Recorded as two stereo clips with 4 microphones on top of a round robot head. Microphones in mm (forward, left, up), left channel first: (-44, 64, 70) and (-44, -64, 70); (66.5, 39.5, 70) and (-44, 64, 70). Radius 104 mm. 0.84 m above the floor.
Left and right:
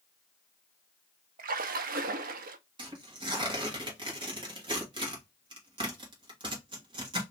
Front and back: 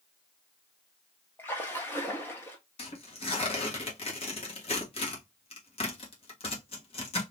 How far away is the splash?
About 0.5 m.